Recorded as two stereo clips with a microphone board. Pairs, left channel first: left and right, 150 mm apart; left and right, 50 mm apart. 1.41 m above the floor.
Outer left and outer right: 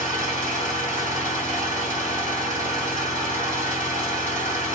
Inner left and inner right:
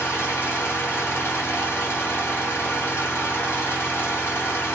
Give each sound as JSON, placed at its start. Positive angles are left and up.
{"t": 0.0, "sound": "an engine running", "side_deg": 50, "distance_m": 1.6}